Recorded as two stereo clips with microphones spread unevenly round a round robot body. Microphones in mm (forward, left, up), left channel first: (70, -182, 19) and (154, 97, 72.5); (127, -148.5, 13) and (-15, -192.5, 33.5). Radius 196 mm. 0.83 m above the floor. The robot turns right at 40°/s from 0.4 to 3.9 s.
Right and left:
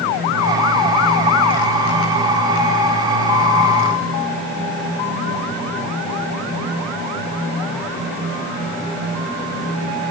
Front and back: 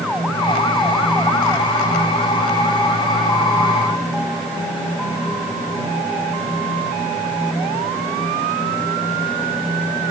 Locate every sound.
Only background noise.